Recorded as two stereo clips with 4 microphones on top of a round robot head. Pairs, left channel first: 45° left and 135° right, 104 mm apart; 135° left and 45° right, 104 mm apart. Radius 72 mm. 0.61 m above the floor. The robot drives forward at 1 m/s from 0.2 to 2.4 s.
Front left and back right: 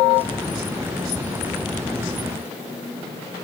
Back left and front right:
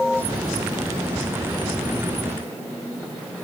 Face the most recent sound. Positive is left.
No sound to turn to.